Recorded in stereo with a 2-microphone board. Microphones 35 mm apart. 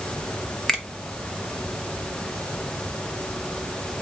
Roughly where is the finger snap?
Centre.